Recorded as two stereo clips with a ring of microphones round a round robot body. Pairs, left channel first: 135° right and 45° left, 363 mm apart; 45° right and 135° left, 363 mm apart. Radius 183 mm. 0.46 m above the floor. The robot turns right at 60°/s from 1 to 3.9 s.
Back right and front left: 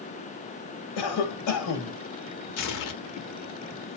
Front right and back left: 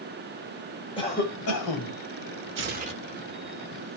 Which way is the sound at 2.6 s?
175° right.